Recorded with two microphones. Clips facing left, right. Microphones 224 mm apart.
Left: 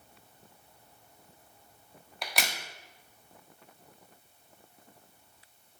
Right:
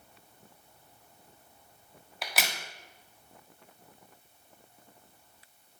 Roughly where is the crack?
Centre.